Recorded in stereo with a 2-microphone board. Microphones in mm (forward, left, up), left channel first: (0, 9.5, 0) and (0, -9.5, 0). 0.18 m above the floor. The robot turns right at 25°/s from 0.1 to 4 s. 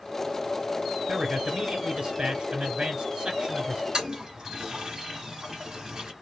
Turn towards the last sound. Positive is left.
turn(degrees=-35)  # may be behind; listen again after turning